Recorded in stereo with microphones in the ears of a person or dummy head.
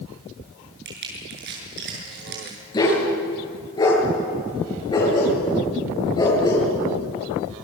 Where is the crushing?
60° right (ahead or behind), 7 m.